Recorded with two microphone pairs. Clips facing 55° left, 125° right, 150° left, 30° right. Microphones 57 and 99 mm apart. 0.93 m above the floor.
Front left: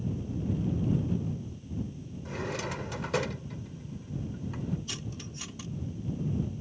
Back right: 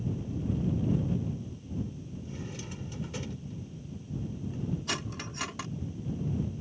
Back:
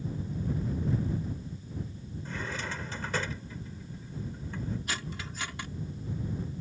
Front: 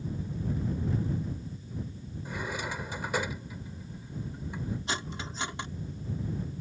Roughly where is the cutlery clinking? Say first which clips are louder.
Back right 5 dB, front 2 dB; right.